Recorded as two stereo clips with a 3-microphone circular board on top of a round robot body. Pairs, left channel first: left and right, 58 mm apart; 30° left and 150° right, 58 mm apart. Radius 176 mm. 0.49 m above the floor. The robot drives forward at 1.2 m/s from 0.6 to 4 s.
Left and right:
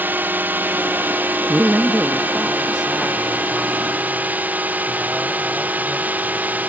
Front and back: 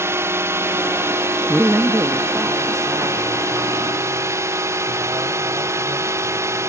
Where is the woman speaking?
95° right; by 6.7 s 175° right.